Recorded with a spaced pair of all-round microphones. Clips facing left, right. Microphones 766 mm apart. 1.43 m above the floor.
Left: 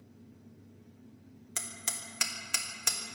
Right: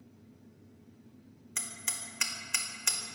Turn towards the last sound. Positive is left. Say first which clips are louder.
# left 1 dB
turn(degrees=70)  # may be behind; listen again after turning